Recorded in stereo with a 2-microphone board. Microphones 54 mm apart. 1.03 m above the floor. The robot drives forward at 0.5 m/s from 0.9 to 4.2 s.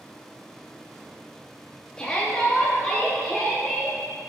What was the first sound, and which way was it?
A shout, 15° left (ahead or behind).